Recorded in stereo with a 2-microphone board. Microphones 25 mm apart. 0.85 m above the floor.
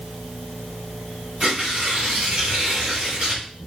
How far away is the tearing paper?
About 2.5 m.